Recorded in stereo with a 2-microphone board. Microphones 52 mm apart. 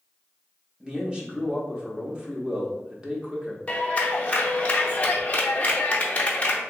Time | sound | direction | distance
0.8 | a man speaking | 15° right (ahead or behind) | 0.7 m
3.7 | a clap | 30° left (ahead or behind) | 0.6 m